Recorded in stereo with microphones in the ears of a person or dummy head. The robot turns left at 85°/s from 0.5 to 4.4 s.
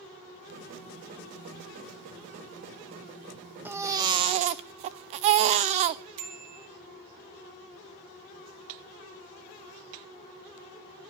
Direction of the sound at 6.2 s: 70° right (ahead or behind).